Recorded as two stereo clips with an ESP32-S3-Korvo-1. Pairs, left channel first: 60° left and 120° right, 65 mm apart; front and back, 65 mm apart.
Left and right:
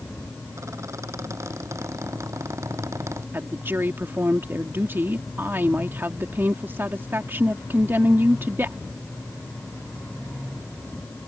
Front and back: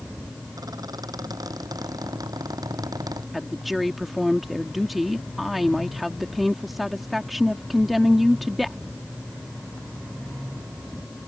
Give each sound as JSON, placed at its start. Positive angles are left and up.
{"t": 0.6, "sound": "a squeak", "azimuth_deg": -160}
{"t": 3.3, "sound": "a woman speaking", "azimuth_deg": -95}